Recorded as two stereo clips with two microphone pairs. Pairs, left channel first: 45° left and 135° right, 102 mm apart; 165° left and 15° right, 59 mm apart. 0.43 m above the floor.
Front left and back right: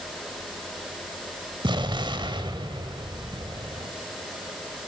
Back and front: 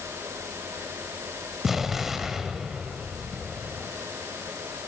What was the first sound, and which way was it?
An explosion, 100° right.